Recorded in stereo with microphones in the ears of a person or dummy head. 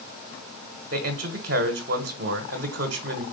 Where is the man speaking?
50° right (ahead or behind), 1.4 m.